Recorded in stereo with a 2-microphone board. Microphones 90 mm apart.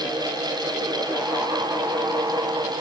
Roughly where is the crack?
No crack in this recording.